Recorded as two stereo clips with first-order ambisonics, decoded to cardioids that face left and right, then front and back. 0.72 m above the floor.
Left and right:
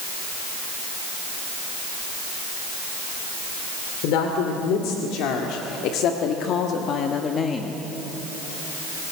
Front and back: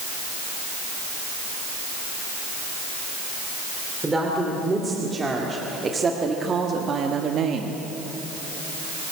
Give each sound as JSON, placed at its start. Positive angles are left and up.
{"t": 4.0, "sound": "a woman speaking", "azimuth_deg": 100, "distance_m": 2.5}